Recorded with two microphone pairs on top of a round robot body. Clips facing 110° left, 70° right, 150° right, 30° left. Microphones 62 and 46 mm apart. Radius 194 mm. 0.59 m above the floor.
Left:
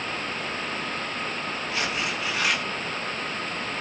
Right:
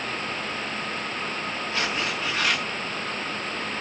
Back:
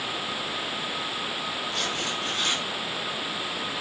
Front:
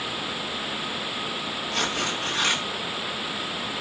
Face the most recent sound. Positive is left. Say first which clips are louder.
# right 1 dB, front 6 dB
turn(degrees=25)